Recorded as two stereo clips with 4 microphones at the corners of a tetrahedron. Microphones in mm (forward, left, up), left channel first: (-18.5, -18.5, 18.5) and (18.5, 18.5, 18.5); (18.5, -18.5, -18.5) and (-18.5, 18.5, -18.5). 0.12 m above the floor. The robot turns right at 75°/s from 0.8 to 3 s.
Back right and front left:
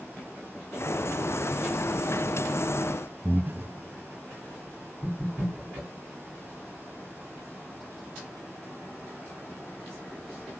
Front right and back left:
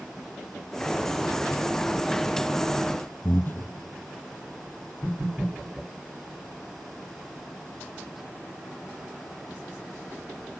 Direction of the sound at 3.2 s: 5° right.